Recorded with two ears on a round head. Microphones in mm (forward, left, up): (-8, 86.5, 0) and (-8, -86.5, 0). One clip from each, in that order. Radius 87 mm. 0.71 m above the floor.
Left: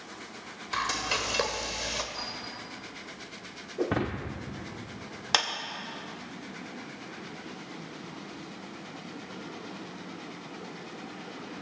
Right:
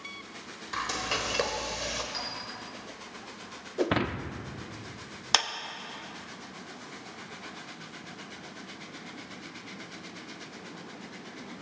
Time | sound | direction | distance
0.7 | frying | 15° left (ahead or behind) | 1.1 m
2.1 | a clink | 60° right (ahead or behind) | 5.5 m
3.8 | breaking glass | 70° right (ahead or behind) | 0.7 m
5.3 | a clap | 20° right (ahead or behind) | 0.8 m